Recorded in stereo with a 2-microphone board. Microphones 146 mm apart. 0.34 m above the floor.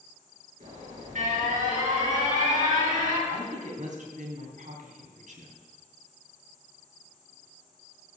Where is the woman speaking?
60° right (ahead or behind), 3 m.